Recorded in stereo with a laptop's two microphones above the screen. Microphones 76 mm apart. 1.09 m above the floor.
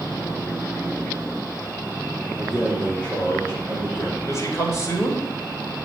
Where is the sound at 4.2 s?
45° left (ahead or behind), 2.5 m.